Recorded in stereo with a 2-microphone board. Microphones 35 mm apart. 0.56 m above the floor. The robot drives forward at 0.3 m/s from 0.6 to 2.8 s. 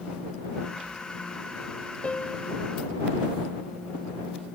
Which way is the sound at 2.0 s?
35° left (ahead or behind).